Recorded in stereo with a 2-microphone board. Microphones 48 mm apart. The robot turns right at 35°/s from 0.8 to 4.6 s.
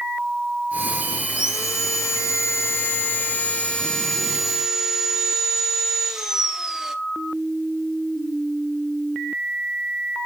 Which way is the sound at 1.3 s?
75° left.